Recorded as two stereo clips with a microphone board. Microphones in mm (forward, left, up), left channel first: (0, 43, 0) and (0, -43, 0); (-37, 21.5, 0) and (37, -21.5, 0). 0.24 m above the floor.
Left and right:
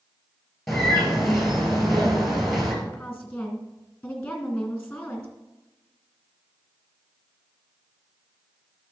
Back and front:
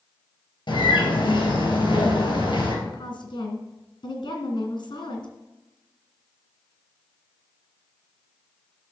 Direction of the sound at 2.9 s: 165° left.